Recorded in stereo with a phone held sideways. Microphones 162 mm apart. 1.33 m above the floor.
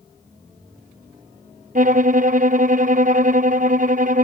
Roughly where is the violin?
Right.